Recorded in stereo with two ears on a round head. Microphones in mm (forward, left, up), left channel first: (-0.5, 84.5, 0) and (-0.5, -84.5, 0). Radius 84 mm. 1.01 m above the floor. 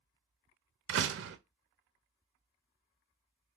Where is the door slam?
70° right (ahead or behind), 0.7 m.